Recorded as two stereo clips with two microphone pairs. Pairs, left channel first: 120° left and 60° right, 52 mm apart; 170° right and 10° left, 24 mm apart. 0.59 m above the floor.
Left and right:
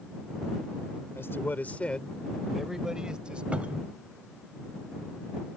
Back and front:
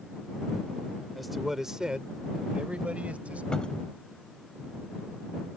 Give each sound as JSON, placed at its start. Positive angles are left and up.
{"t": 1.1, "sound": "a man speaking", "azimuth_deg": 95}
{"t": 3.5, "sound": "a cupboard door", "azimuth_deg": -120}